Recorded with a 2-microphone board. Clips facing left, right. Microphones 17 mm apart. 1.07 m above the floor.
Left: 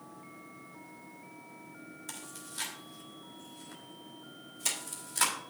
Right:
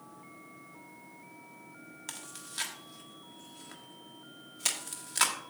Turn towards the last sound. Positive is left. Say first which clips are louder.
# right 2 dB
turn(degrees=-40)  # may be behind; listen again after turning